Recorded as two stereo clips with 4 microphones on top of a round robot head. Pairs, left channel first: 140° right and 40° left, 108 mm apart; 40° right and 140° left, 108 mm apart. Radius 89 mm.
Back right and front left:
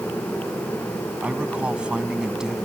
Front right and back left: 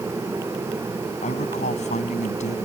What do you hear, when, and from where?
1.2 s a man speaking: 35° right; by 2.6 s 45° right